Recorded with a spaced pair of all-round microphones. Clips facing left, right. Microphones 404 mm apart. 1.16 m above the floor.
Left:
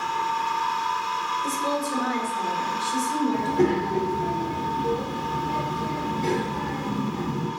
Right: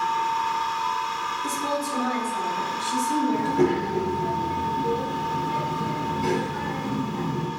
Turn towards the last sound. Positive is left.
turn(degrees=-20)  # may be behind; listen again after turning